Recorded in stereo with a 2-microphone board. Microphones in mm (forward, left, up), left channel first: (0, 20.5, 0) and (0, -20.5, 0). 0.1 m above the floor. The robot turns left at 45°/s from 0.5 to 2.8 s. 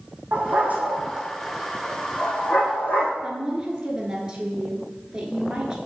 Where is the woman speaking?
20° right (ahead or behind), 1.5 m.